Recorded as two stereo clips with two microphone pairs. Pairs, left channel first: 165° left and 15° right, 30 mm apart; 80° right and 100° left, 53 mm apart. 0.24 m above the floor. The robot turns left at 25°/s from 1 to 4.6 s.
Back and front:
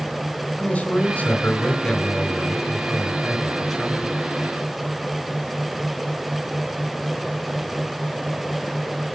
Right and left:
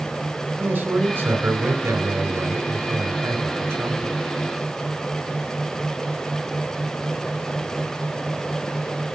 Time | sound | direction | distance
0.6 | a man speaking | 140° left | 2.5 m